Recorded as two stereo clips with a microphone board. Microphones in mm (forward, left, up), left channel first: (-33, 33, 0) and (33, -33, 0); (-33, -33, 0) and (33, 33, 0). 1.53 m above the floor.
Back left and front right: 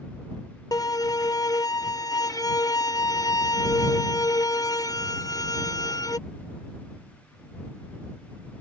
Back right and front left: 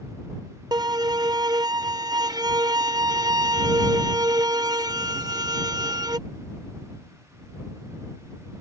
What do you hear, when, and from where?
0.7 s a violin: 85° left